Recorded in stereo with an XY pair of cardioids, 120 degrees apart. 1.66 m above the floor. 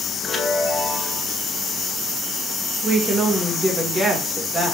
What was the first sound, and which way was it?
A chime, 10° left.